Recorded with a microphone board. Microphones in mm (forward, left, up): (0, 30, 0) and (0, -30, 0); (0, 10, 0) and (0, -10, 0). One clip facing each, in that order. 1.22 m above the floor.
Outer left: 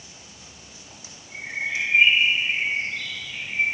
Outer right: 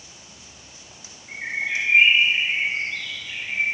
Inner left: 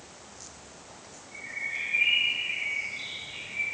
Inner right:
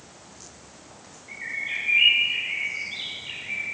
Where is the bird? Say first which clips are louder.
Outer right 2 dB, inner right 4 dB; 65° right (ahead or behind), 4.5 m.